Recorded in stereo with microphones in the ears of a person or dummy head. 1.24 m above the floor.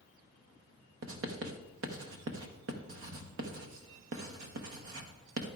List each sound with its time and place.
1.0 s writing: 70° right (ahead or behind), 0.9 m